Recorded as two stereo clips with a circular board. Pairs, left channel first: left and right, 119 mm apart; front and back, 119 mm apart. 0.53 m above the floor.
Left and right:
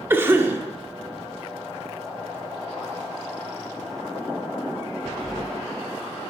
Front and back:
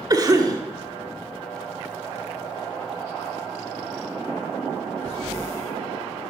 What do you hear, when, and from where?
0.1 s a cough: 150° right, 1.2 m